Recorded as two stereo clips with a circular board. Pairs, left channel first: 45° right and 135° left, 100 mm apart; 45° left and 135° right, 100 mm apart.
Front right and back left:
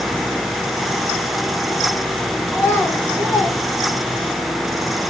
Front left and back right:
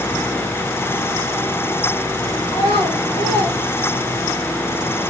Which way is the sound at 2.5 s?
25° left.